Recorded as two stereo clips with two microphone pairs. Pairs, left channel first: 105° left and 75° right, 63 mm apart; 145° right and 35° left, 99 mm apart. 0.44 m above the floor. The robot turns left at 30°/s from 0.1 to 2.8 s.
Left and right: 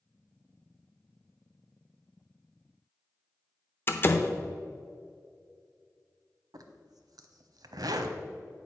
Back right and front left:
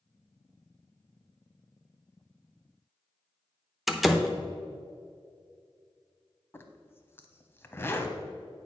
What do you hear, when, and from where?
3.9 s a door slam: 120° left, 0.6 m
6.5 s a zipper: 80° right, 0.6 m